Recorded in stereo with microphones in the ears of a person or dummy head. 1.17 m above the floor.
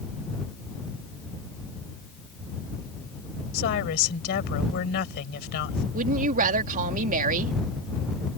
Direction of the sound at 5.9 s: 45° right (ahead or behind).